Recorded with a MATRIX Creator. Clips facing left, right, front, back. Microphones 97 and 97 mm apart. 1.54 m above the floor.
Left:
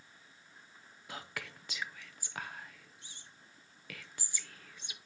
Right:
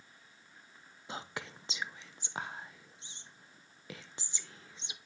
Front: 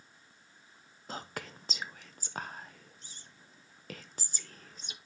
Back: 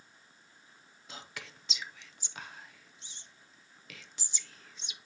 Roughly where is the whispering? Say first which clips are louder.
Right 2 dB, front 6 dB; ahead right.